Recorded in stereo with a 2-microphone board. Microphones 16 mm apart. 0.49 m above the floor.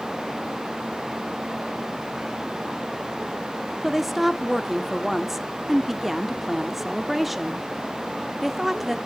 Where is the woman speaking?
10° right (ahead or behind), 0.7 m.